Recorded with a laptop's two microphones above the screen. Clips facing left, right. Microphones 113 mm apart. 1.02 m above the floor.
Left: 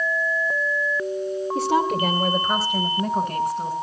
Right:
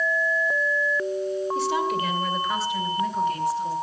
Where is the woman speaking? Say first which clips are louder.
Left 7 dB; 55° left (ahead or behind), 2.5 m; by 3.7 s 60° left (ahead or behind), 4 m.